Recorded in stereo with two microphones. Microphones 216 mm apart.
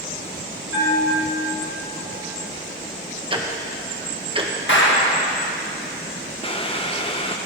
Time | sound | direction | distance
0.7 | a bell | 60° left (ahead or behind) | 5 m
3.3 | ticking | 25° right (ahead or behind) | 1.0 m
4.7 | a clap | 60° left (ahead or behind) | 1.6 m
6.4 | boiling | 25° left (ahead or behind) | 0.7 m